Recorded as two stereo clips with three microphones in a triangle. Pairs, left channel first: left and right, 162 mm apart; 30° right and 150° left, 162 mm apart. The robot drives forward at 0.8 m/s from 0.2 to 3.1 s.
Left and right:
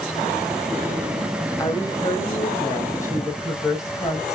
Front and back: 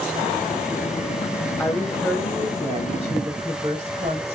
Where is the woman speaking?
40° left, 1.1 m; by 4.3 s 150° left, 1.2 m.